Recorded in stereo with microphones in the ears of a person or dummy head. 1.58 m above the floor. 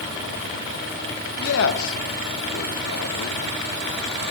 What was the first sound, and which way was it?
A man speaking, 85° left.